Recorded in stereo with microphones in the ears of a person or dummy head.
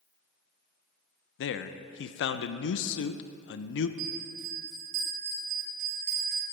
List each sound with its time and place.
1.4 s a man speaking: 75° left (ahead or behind), 0.6 m
4.0 s a bell: 50° right (ahead or behind), 4.5 m